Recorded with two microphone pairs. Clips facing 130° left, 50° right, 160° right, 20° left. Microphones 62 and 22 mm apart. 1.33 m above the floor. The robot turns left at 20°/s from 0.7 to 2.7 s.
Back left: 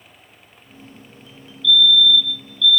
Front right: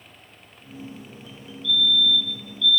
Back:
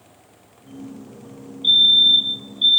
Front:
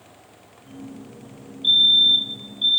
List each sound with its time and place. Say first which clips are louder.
1.6 s a fire alarm: back left 6 dB, back 2 dB; 90° right, 1.0 m; by 2.8 s 110° right, 1.0 m